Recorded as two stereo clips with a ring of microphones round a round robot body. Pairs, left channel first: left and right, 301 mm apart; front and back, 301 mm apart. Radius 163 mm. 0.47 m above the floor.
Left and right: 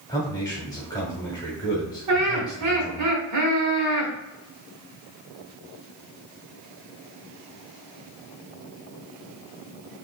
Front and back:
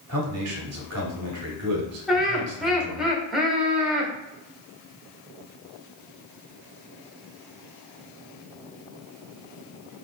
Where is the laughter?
90° right, 1.2 m.